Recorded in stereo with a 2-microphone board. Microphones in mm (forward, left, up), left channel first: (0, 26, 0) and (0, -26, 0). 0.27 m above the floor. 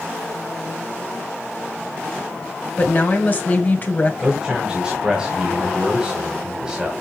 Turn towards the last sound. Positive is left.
turn(degrees=-15)  # may be behind; listen again after turning